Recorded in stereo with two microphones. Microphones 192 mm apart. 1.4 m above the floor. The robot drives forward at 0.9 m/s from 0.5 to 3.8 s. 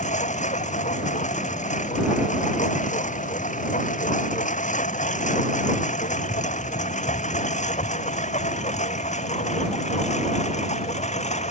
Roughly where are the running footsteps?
I don't hear running footsteps.